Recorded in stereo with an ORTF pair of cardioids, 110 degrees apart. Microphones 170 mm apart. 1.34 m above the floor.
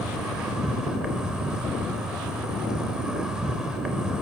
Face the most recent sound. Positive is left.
turn(degrees=-5)